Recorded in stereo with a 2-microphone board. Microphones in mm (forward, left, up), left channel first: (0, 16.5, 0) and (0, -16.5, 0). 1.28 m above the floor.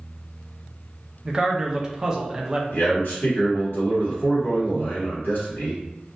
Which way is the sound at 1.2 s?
20° right (ahead or behind).